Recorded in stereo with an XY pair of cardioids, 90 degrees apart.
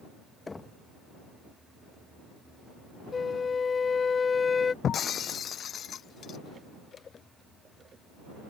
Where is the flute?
40° left.